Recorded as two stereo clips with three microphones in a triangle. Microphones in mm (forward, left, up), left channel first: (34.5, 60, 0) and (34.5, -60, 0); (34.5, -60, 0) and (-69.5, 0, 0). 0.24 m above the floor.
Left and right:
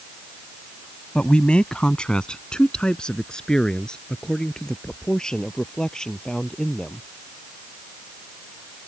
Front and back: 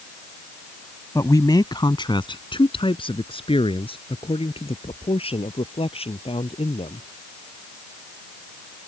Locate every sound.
1.1 s a man speaking: 15° left; by 7.1 s 5° left